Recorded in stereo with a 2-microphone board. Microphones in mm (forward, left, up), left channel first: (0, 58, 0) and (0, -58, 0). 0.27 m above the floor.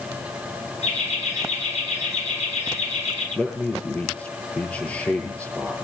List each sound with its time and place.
0.8 s laughter: 65° left (ahead or behind), 4 m
3.4 s a man speaking: 15° left (ahead or behind), 9 m